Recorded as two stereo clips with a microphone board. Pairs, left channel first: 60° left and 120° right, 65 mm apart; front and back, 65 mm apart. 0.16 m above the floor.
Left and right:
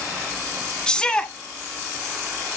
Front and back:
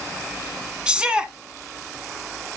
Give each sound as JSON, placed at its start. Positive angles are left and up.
{"t": 0.9, "sound": "a shout", "azimuth_deg": 125, "distance_m": 1.1}